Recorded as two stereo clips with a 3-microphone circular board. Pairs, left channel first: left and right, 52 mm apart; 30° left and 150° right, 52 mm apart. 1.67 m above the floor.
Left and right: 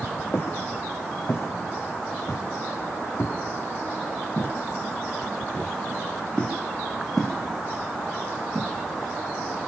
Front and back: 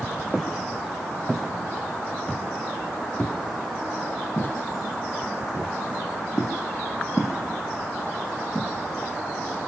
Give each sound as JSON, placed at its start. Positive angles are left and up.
{"t": 0.3, "sound": "footsteps", "azimuth_deg": 125, "distance_m": 5.5}